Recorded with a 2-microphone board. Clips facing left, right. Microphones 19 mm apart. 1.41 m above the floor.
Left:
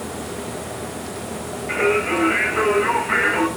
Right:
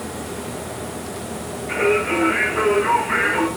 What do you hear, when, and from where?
1.7 s singing: 20° left (ahead or behind), 6 m